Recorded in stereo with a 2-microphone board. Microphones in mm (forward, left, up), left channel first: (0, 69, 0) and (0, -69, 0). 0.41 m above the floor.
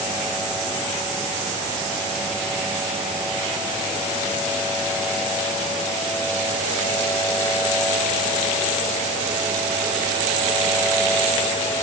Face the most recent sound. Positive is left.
No sound to turn to.